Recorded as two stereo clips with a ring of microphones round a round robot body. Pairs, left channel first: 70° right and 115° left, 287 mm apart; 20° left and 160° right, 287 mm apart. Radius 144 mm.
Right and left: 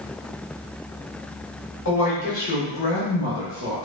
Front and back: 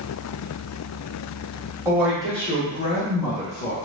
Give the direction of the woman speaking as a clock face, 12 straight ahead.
3 o'clock.